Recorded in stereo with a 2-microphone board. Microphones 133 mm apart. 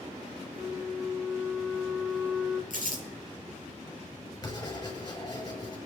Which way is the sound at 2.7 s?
80° right.